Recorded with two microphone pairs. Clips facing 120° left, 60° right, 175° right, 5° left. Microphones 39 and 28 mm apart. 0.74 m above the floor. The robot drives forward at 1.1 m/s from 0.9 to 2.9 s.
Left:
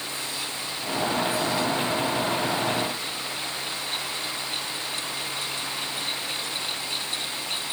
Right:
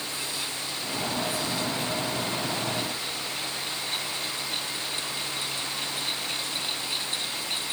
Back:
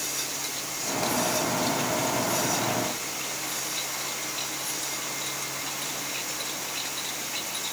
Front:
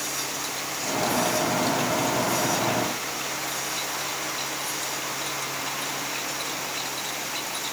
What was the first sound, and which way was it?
Only background noise.